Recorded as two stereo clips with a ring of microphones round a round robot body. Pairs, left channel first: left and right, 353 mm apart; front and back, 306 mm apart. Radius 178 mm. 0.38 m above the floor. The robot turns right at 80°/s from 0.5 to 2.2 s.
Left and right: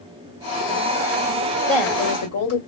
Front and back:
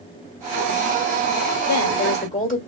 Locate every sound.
1.7 s a woman speaking: 15° left, 2 m; by 2.6 s 55° left, 2 m